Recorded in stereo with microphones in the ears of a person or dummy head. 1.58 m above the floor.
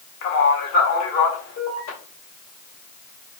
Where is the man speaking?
50° left (ahead or behind), 1.0 m; by 2.0 s 55° left (ahead or behind), 2 m.